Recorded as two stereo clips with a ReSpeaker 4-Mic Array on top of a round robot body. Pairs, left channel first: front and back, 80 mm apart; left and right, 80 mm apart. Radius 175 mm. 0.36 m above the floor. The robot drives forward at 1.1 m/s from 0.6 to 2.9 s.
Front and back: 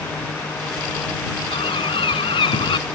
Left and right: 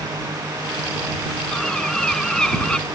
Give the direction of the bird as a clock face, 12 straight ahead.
12 o'clock.